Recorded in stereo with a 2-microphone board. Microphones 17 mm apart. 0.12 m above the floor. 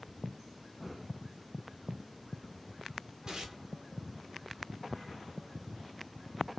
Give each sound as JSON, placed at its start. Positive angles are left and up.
{"t": 3.3, "sound": "tearing paper", "side_deg": -35, "distance_m": 1.1}